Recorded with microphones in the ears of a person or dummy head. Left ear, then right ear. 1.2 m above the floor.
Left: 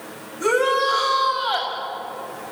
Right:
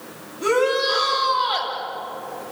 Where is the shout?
50° left (ahead or behind), 8 m.